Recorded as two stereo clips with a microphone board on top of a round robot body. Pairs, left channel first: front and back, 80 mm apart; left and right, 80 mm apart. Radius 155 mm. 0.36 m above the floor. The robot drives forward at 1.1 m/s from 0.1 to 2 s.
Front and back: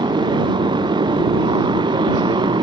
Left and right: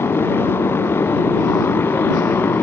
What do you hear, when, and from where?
0.0 s a motorcycle: 155° left